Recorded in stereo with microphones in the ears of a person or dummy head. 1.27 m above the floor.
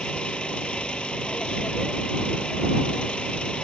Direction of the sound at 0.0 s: 5° left (ahead or behind).